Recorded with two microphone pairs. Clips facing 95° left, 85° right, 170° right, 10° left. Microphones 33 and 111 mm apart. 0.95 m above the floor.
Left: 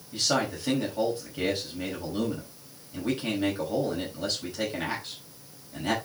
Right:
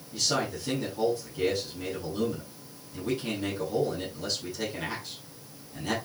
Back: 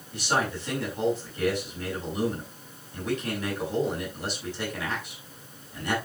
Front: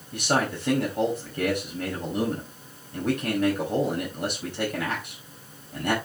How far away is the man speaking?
About 5 m.